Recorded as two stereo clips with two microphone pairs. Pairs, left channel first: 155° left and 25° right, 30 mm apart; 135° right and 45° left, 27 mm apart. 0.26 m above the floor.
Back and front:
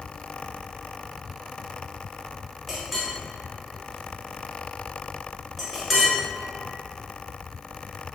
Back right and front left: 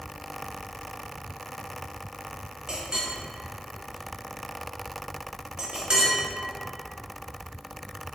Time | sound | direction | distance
2.7 | a clink | 55° left | 0.7 m